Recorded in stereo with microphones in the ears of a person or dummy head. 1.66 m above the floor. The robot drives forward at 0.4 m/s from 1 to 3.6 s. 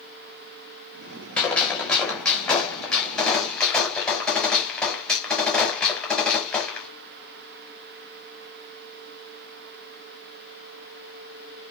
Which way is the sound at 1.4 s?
10° left (ahead or behind).